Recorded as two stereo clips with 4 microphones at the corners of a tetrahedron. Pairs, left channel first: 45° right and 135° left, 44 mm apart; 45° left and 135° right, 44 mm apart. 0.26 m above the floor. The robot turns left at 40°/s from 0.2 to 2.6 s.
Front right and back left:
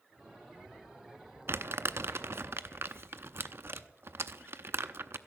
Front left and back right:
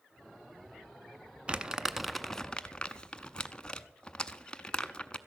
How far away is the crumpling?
About 0.6 m.